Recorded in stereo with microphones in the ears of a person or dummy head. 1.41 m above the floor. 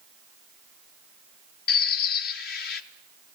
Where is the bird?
55° left (ahead or behind), 1.1 m.